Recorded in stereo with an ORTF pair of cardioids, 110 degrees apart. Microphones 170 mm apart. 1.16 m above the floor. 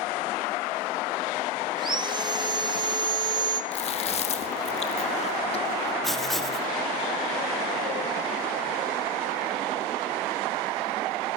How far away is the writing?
About 2 m.